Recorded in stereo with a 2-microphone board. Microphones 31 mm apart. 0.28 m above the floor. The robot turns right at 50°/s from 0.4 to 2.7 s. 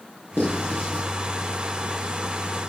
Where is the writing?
80° left, 6 m; by 1.0 s 60° left (ahead or behind), 6 m.